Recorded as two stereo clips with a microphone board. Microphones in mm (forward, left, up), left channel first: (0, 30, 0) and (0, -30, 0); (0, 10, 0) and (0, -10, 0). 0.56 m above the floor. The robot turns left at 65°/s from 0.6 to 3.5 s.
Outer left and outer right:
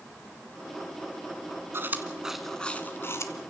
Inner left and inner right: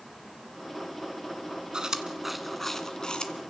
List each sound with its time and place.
1.7 s chewing: 45° right (ahead or behind), 1.6 m; by 3.3 s 60° left (ahead or behind), 1.6 m